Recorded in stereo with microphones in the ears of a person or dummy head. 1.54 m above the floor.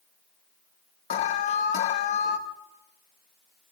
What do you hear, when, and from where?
1.1 s an alarm: 50° left (ahead or behind), 0.6 m